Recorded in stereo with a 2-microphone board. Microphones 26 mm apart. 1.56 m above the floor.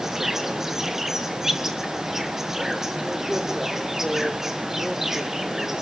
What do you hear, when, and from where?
0.0 s an insect: 20° right (ahead or behind), 1.6 m